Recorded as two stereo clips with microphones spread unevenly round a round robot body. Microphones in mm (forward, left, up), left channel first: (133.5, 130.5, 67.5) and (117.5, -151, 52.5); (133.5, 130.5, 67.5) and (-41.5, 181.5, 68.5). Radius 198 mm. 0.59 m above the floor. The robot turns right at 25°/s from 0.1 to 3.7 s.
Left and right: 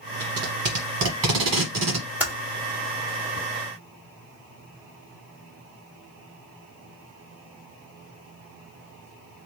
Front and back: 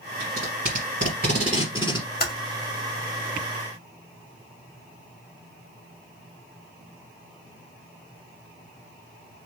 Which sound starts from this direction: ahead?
Typing on a keyboard, at 2.2 s.